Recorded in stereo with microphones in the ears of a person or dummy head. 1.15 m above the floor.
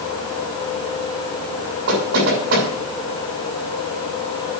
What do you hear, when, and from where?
1.9 s knocking: 75° right (ahead or behind), 6 m